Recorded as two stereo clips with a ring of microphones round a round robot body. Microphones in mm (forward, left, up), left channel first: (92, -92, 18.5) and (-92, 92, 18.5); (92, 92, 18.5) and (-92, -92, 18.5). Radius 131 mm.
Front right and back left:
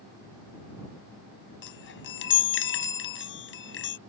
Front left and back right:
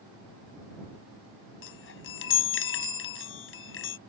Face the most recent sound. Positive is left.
turn(degrees=0)